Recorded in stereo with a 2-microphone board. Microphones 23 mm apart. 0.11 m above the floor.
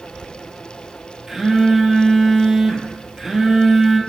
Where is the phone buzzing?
20° right (ahead or behind), 0.5 m.